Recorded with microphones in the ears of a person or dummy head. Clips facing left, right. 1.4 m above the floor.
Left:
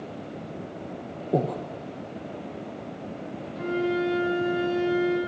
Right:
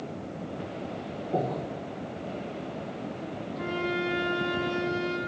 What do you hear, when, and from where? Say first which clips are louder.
1.3 s breathing: left 4 dB; 35° left (ahead or behind), 0.6 m
3.5 s a flute: left 6 dB; 10° left (ahead or behind), 2.5 m